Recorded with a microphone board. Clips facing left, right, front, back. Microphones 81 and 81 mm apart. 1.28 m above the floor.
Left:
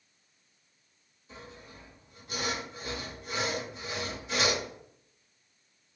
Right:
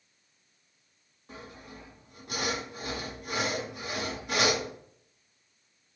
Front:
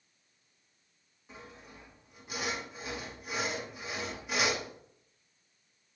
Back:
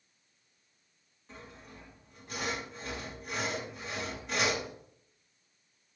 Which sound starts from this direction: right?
Sawing, at 1.3 s.